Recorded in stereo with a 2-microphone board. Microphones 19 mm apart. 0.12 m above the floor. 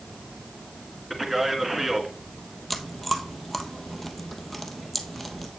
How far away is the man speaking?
About 1.4 m.